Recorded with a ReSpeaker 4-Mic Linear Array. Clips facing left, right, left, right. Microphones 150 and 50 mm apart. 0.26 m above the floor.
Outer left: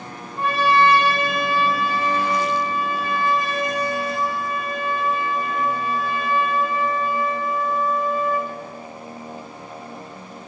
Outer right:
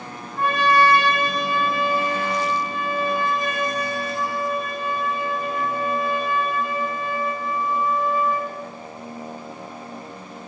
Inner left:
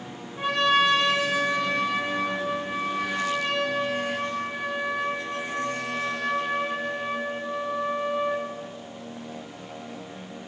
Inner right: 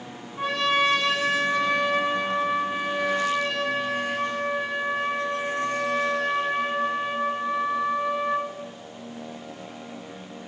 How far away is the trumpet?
About 1.3 m.